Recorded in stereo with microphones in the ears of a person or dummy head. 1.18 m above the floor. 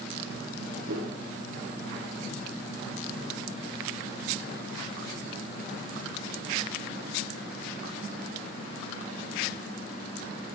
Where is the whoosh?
75° right (ahead or behind), 2.5 m.